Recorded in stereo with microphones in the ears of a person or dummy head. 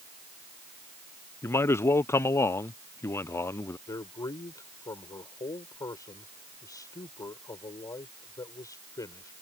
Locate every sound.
1.4 s a man speaking: 20° left (ahead or behind)
3.9 s a man speaking: 25° left (ahead or behind)